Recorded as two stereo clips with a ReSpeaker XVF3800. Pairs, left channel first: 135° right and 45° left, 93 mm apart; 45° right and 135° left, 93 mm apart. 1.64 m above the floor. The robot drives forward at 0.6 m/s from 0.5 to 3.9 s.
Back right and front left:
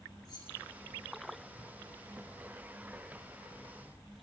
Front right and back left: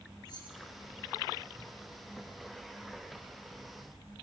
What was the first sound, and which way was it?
Keys jangling, 90° right.